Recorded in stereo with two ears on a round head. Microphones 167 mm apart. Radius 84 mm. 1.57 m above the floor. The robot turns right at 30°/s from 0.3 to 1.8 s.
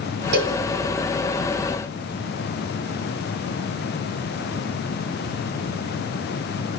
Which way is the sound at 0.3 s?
55° right (ahead or behind).